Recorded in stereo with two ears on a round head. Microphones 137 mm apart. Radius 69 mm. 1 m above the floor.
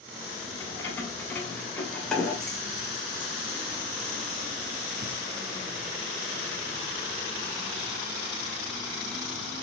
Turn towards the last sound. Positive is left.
turn(degrees=-75)  # may be behind; listen again after turning